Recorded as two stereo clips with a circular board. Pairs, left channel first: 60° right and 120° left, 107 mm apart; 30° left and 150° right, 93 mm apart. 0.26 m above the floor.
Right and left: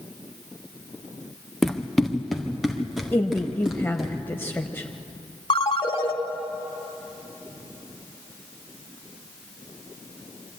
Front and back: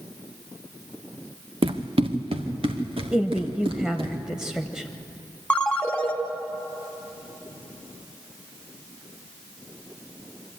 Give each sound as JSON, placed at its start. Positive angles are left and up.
{"t": 1.6, "sound": "running footsteps", "azimuth_deg": -145, "distance_m": 1.3}
{"t": 3.1, "sound": "a woman speaking", "azimuth_deg": -80, "distance_m": 0.9}
{"t": 5.5, "sound": "a ringtone", "azimuth_deg": -45, "distance_m": 1.8}